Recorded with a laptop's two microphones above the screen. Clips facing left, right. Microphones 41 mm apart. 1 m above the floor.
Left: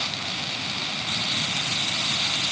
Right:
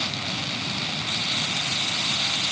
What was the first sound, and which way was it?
Only background noise.